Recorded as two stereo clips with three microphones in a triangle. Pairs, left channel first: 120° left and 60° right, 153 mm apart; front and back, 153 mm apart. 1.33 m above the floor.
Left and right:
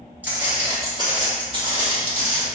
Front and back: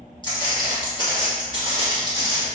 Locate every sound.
0.2 s footsteps: 5° left, 1.5 m; by 2.5 s 55° right, 1.8 m